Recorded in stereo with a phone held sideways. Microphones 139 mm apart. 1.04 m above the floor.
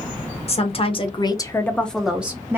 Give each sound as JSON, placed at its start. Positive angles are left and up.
{"t": 0.5, "sound": "a woman speaking", "side_deg": 45, "distance_m": 0.8}